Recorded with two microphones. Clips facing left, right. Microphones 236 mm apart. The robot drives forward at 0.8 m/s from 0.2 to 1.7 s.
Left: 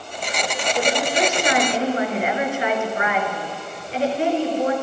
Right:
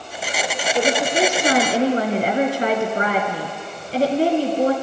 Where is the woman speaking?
30° right (ahead or behind), 3 m; by 4.7 s 35° right (ahead or behind), 2.5 m.